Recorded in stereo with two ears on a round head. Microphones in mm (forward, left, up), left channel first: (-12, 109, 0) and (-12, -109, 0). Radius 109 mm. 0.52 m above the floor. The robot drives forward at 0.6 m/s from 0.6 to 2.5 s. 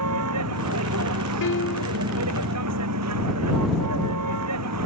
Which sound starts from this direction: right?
A vehicle, at 0.0 s.